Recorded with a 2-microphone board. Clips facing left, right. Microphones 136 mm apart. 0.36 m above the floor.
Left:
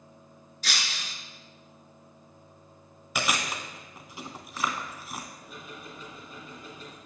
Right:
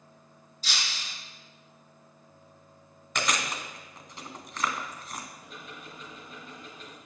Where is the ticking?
10° left (ahead or behind), 4 m.